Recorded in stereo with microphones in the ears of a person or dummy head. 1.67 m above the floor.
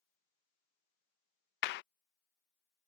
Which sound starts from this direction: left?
A clap, at 1.6 s.